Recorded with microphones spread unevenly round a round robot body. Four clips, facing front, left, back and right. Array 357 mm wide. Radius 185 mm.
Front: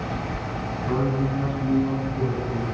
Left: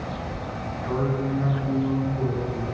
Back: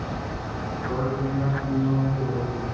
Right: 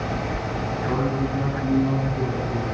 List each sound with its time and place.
0.8 s a man speaking: 30° right, 8 m; by 2.6 s 35° right, 8.5 m